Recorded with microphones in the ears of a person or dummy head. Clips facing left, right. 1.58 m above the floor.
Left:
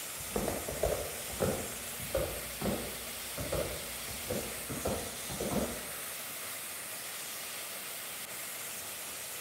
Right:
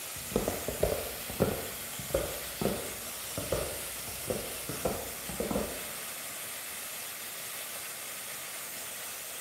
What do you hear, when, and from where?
0.2 s footsteps: 40° right (ahead or behind), 1.9 m; by 5.7 s 55° right (ahead or behind), 5 m